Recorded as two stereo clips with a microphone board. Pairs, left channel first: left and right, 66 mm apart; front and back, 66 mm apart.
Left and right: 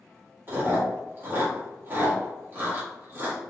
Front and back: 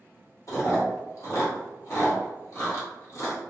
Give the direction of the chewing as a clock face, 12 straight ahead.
1 o'clock.